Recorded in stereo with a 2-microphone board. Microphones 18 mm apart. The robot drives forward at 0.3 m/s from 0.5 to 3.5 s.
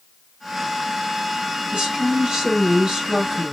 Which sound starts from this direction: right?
A woman speaking, at 1.7 s.